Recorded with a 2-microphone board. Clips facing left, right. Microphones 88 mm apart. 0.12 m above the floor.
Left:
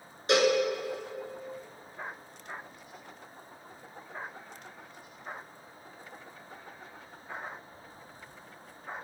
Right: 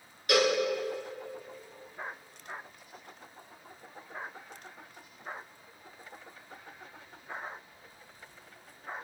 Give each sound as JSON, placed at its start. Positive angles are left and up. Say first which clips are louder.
{"t": 0.3, "sound": "a cowbell", "louder": "left 2 dB", "side_deg": 30, "distance_m": 1.6}